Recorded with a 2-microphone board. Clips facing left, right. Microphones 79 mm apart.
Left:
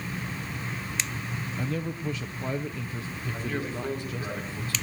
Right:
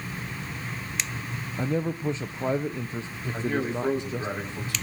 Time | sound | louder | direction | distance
1.6 | a man speaking | right 6 dB | 25° right (ahead or behind) | 0.7 m
3.3 | a man speaking | right 6 dB | 20° right (ahead or behind) | 6 m